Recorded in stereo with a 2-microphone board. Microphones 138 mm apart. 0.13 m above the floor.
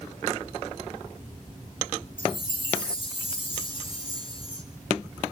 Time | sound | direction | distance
2.2 | a chime | 40° left (ahead or behind) | 2 m